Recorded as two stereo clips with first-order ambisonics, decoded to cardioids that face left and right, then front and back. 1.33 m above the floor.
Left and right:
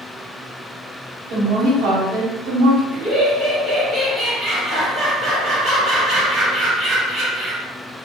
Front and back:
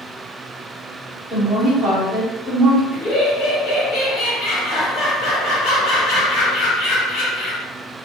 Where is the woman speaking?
95° right, 1.4 m.